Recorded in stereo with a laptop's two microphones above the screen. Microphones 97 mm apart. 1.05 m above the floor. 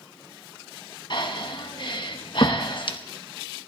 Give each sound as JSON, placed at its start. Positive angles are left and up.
{"t": 1.1, "sound": "breathing", "side_deg": 55, "distance_m": 1.0}